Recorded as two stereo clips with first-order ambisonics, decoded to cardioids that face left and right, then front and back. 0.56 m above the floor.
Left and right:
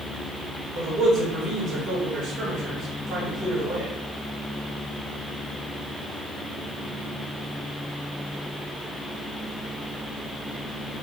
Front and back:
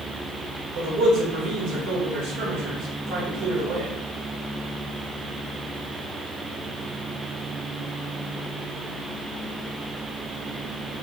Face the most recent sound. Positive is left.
turn(degrees=-145)